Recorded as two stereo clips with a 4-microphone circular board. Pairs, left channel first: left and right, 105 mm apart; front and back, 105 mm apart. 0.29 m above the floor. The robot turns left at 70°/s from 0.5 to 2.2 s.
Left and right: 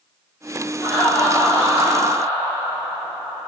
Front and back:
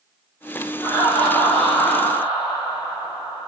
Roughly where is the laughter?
Ahead.